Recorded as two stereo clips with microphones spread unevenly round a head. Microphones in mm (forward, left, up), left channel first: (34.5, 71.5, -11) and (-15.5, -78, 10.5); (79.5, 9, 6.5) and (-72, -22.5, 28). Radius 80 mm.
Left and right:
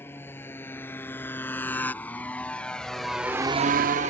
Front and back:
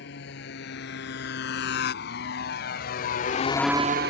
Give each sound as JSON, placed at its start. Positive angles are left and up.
{"t": 0.0, "sound": "a motorcycle", "azimuth_deg": -5}